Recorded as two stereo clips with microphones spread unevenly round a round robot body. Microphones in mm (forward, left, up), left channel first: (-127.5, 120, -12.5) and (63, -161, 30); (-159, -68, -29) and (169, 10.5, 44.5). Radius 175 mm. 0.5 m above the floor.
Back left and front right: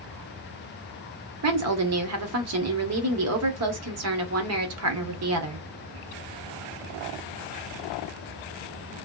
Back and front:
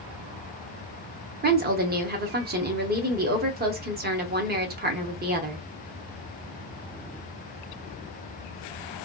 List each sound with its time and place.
1.4 s a woman speaking: 50° right, 0.8 m